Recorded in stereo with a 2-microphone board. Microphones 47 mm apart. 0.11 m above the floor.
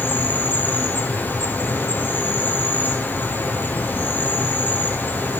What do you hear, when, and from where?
0.0 s an insect: 45° left (ahead or behind), 1.1 m